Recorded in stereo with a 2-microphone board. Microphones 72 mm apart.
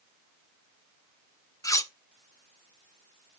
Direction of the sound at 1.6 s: 45° left (ahead or behind).